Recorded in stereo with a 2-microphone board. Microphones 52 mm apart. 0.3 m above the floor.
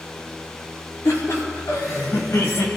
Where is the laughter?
70° left (ahead or behind), 5 m; by 2.7 s 65° left (ahead or behind), 4 m.